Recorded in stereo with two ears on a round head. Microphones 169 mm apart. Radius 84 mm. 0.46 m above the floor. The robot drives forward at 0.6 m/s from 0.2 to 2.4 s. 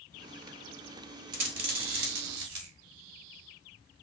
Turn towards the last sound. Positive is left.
turn(degrees=-75)  # may be behind; listen again after turning